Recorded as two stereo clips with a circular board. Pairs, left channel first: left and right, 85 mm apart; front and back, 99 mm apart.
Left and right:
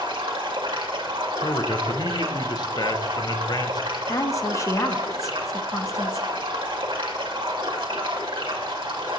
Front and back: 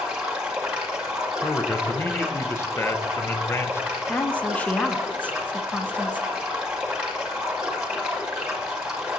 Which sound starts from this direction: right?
Running water, at 0.0 s.